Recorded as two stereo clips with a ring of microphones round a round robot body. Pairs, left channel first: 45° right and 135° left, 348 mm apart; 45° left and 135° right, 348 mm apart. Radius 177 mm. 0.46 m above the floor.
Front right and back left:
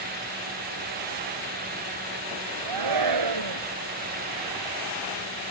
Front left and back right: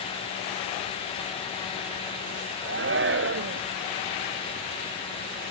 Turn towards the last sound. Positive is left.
turn(degrees=165)